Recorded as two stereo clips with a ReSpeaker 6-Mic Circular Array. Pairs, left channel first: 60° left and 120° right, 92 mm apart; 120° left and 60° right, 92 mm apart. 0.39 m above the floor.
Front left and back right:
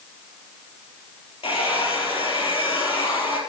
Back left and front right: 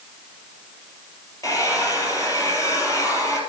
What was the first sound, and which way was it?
A hair dryer, 65° left.